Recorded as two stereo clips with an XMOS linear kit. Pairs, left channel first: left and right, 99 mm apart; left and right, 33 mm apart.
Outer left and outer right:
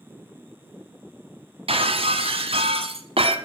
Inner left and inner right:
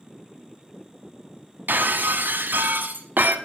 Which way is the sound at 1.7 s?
75° right (ahead or behind).